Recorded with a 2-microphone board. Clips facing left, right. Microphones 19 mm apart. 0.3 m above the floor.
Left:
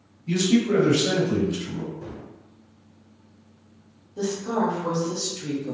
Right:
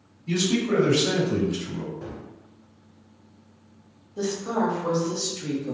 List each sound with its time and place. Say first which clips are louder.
0.3 s a man speaking: left 3 dB; 15° right (ahead or behind), 1.8 m; by 1.9 s 30° left (ahead or behind), 1.8 m
2.0 s a gunshot: even; 40° right (ahead or behind), 1.1 m
4.2 s a woman speaking: left 1 dB; 15° right (ahead or behind), 1.0 m